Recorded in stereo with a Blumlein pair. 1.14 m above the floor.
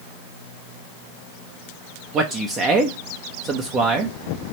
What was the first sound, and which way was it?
A man speaking, 25° right.